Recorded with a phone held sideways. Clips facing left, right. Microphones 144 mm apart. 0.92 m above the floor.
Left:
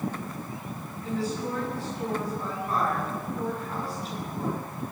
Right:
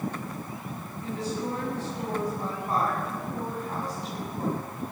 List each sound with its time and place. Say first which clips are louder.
1.0 s a woman speaking: left 1 dB; 20° right (ahead or behind), 10 m